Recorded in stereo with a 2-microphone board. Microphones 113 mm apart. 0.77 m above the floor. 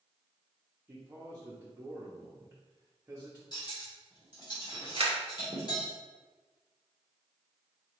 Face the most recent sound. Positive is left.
turn(degrees=-60)  # may be behind; listen again after turning